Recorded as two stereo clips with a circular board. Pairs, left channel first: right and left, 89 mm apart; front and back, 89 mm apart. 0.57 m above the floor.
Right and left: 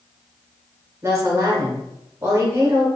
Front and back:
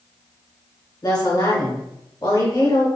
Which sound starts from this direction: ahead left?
A woman speaking, at 1.0 s.